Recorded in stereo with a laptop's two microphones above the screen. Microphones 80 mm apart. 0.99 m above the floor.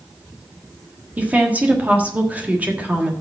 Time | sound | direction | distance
1.2 | a woman speaking | 20° right (ahead or behind) | 1.5 m